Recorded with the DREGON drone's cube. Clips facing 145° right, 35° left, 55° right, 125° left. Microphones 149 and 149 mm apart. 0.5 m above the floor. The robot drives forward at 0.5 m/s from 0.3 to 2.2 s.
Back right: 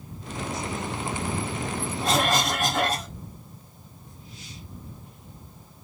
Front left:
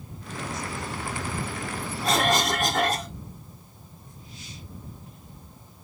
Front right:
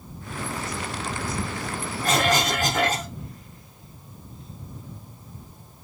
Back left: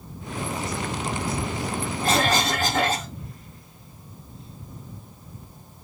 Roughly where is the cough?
Behind left.